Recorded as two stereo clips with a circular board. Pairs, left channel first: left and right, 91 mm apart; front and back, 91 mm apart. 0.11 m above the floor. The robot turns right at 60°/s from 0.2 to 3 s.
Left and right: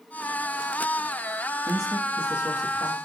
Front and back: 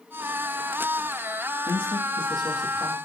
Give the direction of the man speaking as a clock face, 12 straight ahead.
12 o'clock.